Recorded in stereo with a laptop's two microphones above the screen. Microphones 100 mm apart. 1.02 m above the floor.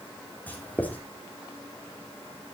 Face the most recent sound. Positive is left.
turn(degrees=15)  # may be behind; listen again after turning